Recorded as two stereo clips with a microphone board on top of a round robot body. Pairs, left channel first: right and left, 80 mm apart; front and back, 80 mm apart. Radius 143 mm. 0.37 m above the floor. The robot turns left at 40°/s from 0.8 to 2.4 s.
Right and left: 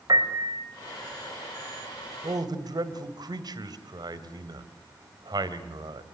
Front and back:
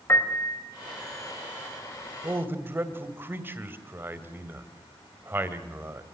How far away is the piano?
About 3 m.